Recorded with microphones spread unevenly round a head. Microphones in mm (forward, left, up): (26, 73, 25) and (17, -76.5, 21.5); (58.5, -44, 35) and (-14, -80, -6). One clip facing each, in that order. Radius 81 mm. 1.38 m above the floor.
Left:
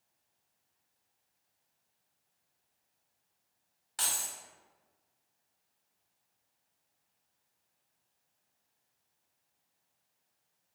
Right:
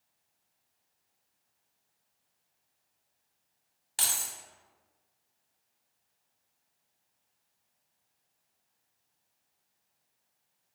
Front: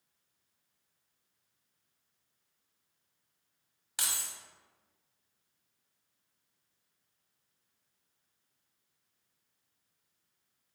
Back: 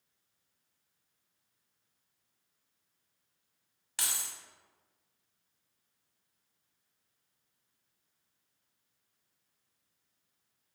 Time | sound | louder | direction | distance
4.0 | keys jangling | right 1 dB, even | 35° right | 0.9 m